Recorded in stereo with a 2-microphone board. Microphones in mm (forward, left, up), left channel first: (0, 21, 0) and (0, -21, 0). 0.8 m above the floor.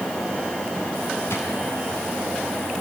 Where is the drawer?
85° left, 2.5 m.